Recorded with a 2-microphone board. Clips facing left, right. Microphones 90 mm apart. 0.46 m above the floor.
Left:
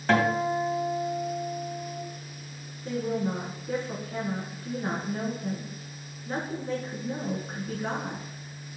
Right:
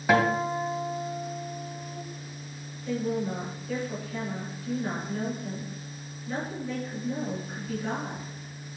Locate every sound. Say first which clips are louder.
0.1 s a guitar: even; 10° right (ahead or behind), 1.9 m
2.9 s a woman speaking: even; 35° left (ahead or behind), 4.5 m